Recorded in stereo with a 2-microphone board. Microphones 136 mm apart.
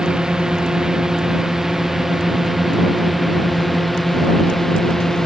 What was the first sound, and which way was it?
A drone, 5° right (ahead or behind).